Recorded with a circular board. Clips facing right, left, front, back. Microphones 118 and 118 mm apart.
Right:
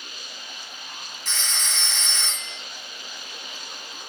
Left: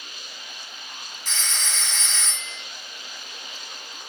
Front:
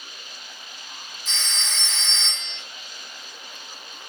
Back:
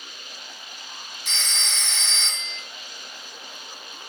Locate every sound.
1.2 s a phone ringing: straight behind, 1.9 m